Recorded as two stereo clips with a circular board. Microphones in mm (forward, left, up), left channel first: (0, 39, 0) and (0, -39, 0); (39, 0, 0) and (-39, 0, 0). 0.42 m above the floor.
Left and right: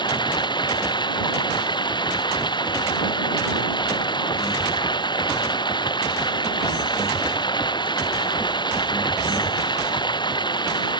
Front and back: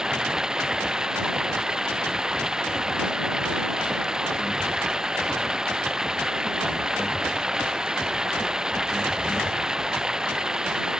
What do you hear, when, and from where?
0.0 s running water: 95° left